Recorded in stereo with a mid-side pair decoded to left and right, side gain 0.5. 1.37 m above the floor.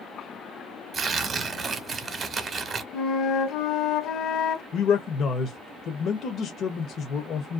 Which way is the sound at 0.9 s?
40° right.